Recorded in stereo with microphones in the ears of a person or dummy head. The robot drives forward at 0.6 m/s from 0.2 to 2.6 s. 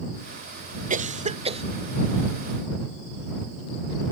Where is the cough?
40° right (ahead or behind); by 1.6 s 30° right (ahead or behind).